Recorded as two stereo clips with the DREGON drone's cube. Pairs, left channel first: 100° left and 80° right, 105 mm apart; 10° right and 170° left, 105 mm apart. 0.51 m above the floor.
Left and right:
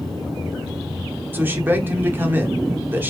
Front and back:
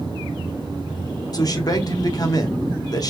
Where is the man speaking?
25° right, 0.8 m.